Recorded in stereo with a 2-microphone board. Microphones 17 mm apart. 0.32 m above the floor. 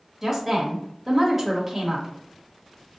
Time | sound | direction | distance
0.2 | a woman speaking | 5° right (ahead or behind) | 1.1 m